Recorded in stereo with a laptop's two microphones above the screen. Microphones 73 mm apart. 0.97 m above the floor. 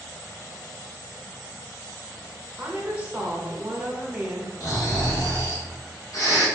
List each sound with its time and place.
2.6 s a woman speaking: 15° right (ahead or behind), 1.0 m
4.6 s snoring: 50° left (ahead or behind), 1.6 m